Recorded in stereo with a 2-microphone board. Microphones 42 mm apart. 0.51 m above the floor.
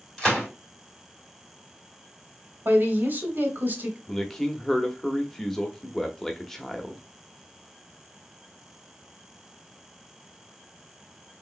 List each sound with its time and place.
0.2 s a gunshot: 15° left (ahead or behind), 2 m
2.6 s a woman speaking: 50° right (ahead or behind), 1.5 m
4.1 s a man speaking: 10° left (ahead or behind), 0.8 m